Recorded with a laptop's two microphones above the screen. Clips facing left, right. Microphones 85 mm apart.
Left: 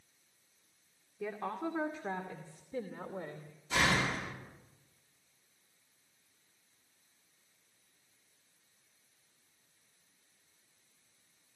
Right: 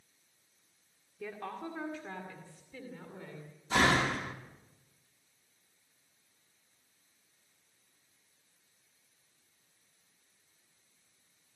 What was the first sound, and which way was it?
A woman speaking, 15° left (ahead or behind).